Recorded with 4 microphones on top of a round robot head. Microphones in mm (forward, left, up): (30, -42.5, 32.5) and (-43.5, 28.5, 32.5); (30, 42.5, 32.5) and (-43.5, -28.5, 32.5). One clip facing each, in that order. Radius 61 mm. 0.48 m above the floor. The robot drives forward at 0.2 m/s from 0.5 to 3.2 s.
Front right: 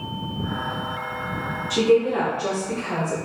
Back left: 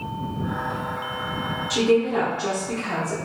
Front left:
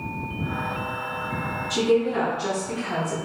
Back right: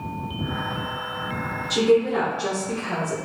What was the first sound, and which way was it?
A woman speaking, 175° right.